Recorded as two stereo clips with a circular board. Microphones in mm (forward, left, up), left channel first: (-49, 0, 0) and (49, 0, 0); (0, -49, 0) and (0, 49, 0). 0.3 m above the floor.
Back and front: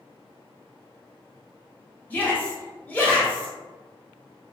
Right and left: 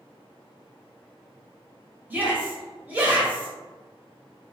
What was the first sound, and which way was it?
A shout, 135° left.